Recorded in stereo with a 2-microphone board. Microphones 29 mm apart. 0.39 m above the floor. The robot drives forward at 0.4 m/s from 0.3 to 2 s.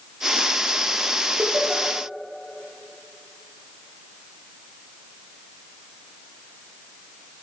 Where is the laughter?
60° right (ahead or behind), 9.5 m.